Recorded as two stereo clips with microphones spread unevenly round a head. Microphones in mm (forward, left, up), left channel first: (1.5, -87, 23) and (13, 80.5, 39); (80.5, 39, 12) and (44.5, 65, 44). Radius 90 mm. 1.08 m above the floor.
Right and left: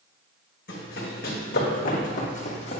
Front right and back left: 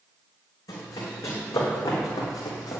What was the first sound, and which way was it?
Running footsteps, 65° right.